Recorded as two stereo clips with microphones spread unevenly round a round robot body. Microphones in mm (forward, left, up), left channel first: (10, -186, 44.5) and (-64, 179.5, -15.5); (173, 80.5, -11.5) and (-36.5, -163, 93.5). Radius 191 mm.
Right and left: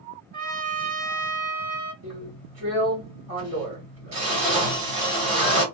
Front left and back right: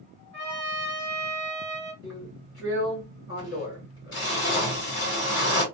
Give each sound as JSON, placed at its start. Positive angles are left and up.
{"t": 0.3, "sound": "a trumpet", "azimuth_deg": 160, "distance_m": 0.9}
{"t": 2.0, "sound": "a drill", "azimuth_deg": 75, "distance_m": 1.7}